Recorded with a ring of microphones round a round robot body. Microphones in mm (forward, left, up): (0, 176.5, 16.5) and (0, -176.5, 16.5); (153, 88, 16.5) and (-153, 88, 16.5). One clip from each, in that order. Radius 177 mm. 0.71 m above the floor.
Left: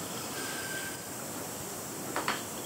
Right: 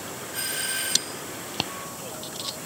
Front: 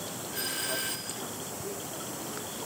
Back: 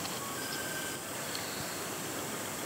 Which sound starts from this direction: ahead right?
A doorbell, at 0.3 s.